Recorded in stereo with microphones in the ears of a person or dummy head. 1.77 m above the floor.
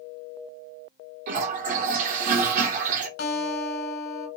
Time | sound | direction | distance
1.3 | a toilet flushing | 45° right (ahead or behind) | 0.6 m
3.2 | a guitar | 70° left (ahead or behind) | 1.2 m